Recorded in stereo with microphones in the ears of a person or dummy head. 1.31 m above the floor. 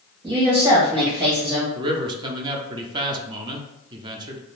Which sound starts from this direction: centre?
A woman speaking, at 0.2 s.